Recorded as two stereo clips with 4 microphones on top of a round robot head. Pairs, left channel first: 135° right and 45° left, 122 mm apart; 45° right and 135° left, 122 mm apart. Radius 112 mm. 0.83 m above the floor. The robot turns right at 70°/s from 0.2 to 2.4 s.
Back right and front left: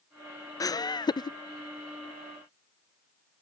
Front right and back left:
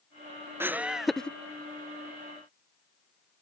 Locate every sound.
0.6 s laughter: 170° right; by 1.4 s 115° right